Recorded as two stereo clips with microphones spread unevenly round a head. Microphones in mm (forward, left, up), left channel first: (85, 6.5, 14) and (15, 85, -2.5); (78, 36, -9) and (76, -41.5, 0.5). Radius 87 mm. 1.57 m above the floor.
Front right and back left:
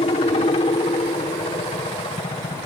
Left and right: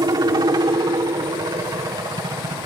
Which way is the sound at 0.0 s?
85° right.